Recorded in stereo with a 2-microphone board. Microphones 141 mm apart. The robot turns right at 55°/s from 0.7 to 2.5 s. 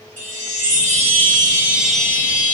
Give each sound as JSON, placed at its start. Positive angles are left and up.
{"t": 0.2, "sound": "a chime", "azimuth_deg": -65, "distance_m": 1.7}